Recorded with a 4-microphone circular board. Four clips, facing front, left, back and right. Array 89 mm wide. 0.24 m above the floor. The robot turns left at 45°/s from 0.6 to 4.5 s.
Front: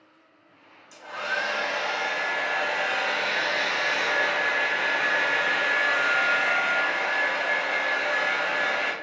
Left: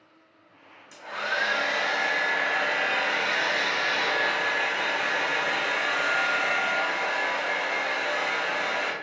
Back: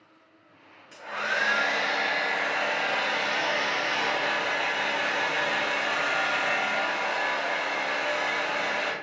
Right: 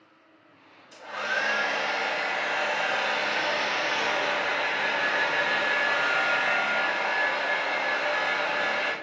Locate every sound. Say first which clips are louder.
0.9 s a hair dryer: even, even; 170° left, 0.9 m; by 8.9 s 10° left, 0.9 m